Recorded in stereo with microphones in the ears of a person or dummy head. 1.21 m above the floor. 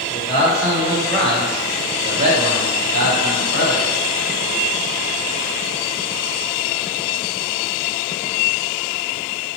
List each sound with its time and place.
0.1 s a man speaking: 25° left (ahead or behind), 1.5 m; by 3.9 s 85° right, 1.2 m